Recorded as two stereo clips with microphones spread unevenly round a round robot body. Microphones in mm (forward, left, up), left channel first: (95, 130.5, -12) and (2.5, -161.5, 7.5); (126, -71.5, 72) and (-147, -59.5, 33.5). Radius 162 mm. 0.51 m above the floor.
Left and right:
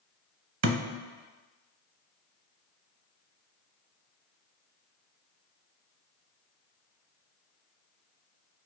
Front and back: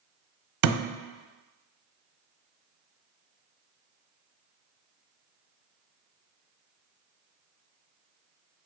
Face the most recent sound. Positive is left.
turn(degrees=-160)